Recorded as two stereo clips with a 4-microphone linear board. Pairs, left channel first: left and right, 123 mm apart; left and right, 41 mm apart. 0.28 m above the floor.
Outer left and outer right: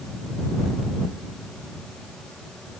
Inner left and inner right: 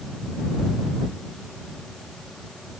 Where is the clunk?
I don't hear a clunk.